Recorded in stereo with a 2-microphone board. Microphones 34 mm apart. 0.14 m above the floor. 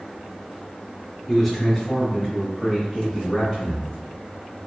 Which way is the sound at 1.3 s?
10° left (ahead or behind).